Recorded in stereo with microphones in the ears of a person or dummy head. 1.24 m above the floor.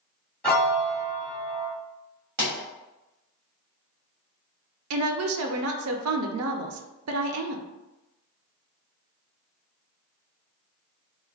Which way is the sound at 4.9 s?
75° right (ahead or behind).